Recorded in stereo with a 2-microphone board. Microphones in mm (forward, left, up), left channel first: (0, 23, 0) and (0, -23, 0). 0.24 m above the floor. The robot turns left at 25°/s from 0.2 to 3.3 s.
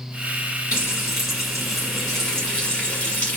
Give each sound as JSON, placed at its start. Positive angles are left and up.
{"t": 0.7, "sound": "frying", "side_deg": -20, "distance_m": 1.9}